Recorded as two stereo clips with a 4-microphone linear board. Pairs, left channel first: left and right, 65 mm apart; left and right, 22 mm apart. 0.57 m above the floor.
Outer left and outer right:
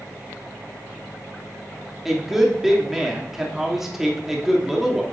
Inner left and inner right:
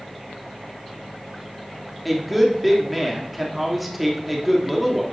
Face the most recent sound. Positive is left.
turn(degrees=-5)  # may be behind; listen again after turning